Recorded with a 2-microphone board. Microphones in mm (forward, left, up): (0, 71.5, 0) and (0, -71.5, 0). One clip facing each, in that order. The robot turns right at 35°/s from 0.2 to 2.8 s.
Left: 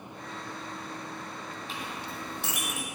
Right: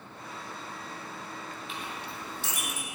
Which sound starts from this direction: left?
A clink, at 1.7 s.